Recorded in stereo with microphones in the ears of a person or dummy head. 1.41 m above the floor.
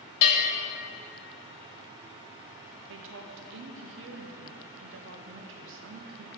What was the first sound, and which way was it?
A bell, 45° left (ahead or behind).